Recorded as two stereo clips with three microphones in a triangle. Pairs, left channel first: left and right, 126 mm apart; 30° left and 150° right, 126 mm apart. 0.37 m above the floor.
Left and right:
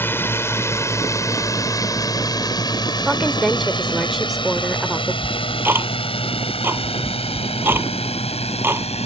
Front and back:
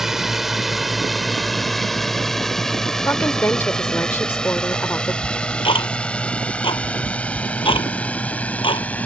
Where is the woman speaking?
5° right.